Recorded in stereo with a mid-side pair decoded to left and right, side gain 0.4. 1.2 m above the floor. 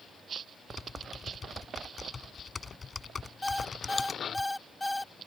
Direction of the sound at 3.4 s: 10° left.